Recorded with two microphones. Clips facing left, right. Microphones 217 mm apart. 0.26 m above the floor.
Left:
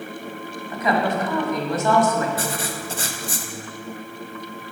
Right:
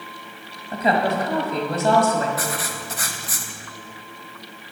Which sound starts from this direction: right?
A woman speaking, at 0.7 s.